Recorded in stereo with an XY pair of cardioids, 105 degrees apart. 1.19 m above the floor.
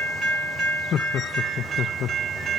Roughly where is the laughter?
Ahead left.